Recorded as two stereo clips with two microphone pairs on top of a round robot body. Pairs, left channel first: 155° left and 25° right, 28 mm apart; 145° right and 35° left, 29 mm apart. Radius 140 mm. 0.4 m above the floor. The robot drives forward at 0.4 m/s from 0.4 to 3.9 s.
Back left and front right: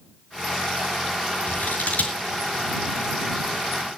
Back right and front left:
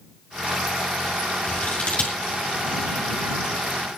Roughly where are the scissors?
Behind.